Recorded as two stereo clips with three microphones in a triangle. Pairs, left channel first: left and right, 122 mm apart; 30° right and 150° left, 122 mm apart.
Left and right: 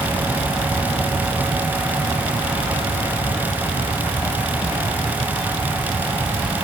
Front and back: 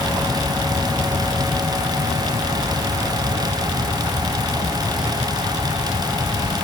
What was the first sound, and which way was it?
Only background noise.